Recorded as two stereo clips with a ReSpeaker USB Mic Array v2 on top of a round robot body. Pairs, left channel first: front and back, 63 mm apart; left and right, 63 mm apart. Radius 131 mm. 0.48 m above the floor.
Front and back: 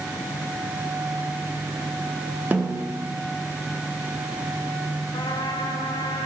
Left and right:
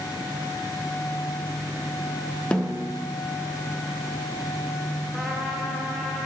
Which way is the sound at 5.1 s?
10° right.